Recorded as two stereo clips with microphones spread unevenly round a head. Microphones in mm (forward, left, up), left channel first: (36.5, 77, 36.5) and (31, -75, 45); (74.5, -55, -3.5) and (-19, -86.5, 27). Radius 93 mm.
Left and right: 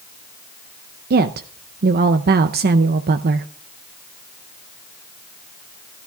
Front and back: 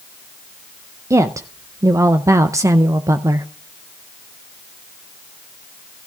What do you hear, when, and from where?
1.1 s a woman speaking: 90° right, 0.6 m